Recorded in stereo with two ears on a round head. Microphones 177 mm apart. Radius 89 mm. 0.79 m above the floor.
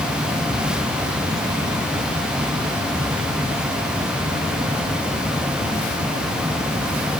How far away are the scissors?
No scissors in this recording.